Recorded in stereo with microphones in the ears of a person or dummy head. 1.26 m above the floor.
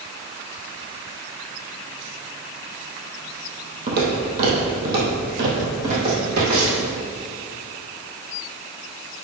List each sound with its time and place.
3.9 s footsteps: 60° right (ahead or behind), 2.5 m; by 6.9 s 55° right (ahead or behind), 5 m